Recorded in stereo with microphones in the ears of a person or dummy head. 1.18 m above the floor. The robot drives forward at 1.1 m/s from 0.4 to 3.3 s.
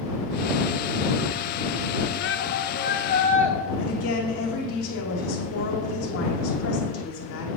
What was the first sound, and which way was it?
A shout, 60° left (ahead or behind).